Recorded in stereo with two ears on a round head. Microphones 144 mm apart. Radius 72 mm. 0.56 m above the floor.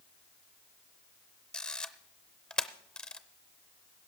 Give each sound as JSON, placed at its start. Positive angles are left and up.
{"t": 1.5, "sound": "a camera shutter", "side_deg": 5, "distance_m": 0.6}